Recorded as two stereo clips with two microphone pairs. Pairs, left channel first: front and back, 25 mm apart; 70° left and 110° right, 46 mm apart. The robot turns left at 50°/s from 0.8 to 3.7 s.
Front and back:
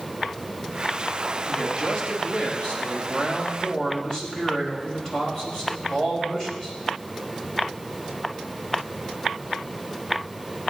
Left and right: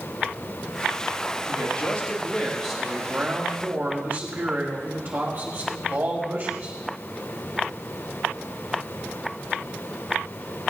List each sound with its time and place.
1.5 s a man speaking: 45° left, 5 m; by 6.8 s 65° right, 5 m